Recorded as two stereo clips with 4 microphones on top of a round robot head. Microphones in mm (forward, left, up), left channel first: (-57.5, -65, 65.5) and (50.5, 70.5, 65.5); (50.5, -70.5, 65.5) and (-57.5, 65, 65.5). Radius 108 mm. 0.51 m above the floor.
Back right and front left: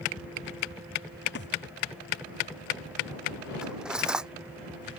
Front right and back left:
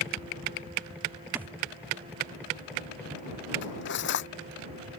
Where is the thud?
150° right.